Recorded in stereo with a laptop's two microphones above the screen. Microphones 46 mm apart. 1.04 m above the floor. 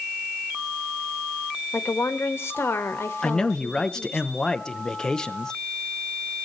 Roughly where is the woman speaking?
Left.